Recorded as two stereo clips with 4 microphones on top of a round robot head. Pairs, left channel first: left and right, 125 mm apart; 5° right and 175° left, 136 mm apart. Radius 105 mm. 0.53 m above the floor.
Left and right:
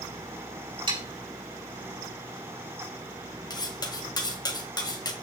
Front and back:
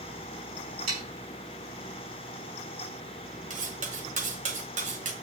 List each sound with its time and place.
0.9 s sawing: 140° right, 5 m
3.5 s cutlery clinking: 145° left, 1.8 m